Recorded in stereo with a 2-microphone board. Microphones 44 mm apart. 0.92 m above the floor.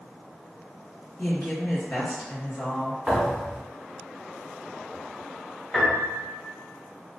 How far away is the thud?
About 1.4 m.